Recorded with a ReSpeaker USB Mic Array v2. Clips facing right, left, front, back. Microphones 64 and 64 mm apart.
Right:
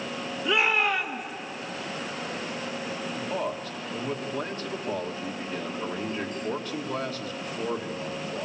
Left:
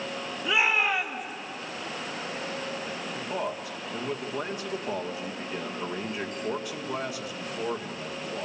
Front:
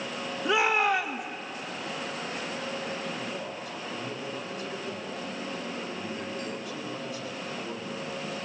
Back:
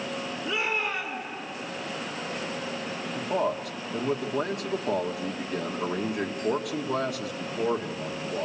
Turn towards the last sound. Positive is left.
turn(degrees=170)